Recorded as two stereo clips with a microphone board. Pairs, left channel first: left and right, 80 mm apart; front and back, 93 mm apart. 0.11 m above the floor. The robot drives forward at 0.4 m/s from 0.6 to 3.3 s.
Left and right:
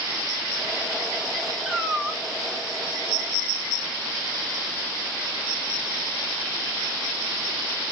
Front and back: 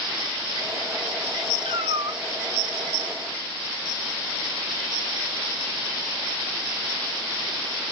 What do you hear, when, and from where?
1.6 s a cat meowing: straight behind, 0.7 m